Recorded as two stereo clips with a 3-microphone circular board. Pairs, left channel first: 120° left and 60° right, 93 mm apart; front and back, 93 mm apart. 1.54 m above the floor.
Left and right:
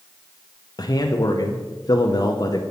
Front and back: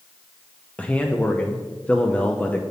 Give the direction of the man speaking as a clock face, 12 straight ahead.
9 o'clock.